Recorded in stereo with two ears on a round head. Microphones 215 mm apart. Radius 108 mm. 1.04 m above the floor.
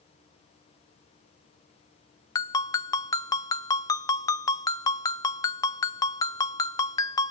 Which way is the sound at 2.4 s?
15° left (ahead or behind).